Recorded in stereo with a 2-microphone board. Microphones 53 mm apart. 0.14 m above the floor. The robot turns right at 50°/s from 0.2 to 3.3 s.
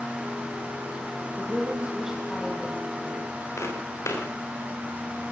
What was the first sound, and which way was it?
A woman speaking, 45° right.